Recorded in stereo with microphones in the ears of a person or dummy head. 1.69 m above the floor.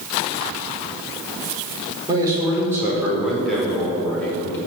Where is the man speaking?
25° right (ahead or behind), 5 m; by 4.6 s 10° left (ahead or behind), 6 m.